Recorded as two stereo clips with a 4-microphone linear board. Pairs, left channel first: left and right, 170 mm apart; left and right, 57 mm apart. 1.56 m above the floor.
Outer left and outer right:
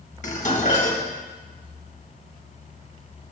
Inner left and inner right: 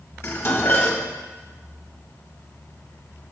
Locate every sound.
0.2 s dishes clattering: 45° left (ahead or behind), 1.5 m